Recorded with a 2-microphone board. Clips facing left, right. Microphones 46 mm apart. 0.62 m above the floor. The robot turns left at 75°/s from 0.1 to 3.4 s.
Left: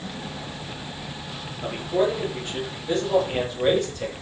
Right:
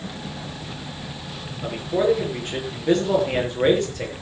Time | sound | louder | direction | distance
1.6 | a man speaking | right 2 dB | 15° left | 9 m